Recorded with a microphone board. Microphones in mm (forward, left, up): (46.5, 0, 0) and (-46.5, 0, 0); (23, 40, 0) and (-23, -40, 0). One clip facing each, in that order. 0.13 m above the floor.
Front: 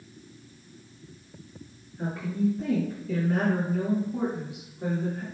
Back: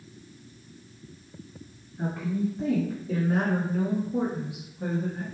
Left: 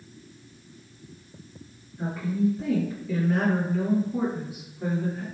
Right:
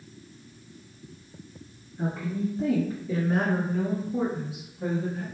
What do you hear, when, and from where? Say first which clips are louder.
2.0 s a woman speaking: front 1 dB, left 3 dB; 130° right, 1.9 m; by 5.2 s 115° left, 1.8 m